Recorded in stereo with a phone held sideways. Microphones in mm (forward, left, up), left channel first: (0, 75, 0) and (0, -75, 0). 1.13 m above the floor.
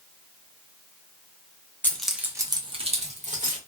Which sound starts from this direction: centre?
Keys jangling, at 1.8 s.